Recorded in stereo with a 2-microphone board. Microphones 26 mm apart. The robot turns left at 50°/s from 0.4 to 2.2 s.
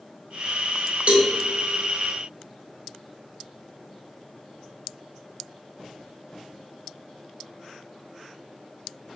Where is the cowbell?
55° right (ahead or behind), 0.6 m.